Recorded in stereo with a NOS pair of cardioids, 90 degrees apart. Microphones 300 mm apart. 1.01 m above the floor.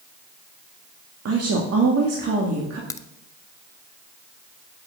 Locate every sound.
1.2 s a woman speaking: 55° right, 2 m
2.9 s a crack: 10° left, 0.7 m